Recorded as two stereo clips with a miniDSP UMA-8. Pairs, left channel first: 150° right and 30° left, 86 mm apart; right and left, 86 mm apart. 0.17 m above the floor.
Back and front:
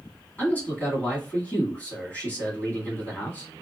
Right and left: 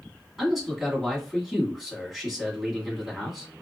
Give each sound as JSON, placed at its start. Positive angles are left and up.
{"t": 0.4, "sound": "a man speaking", "azimuth_deg": 175, "distance_m": 1.7}